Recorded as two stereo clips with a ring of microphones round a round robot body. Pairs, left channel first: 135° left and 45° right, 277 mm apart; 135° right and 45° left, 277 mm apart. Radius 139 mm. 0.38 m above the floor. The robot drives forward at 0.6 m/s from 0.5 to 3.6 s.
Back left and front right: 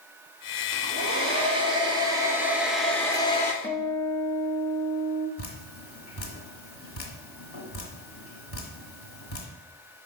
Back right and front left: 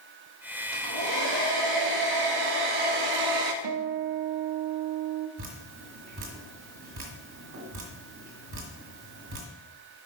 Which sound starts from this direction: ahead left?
A guitar, at 3.6 s.